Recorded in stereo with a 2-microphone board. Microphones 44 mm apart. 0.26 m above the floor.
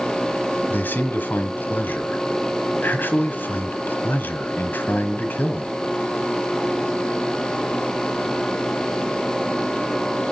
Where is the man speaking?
45° left (ahead or behind), 1.3 m.